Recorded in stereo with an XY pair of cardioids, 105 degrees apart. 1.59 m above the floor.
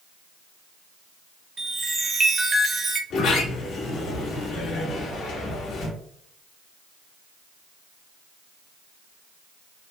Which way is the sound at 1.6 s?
35° right.